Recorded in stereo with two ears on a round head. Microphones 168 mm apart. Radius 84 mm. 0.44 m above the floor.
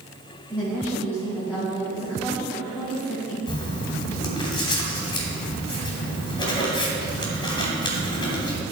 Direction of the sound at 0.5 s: 5° left (ahead or behind).